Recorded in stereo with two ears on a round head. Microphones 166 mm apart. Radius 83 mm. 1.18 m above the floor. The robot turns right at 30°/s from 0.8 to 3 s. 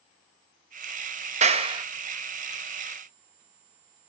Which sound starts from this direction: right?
A clap, at 1.4 s.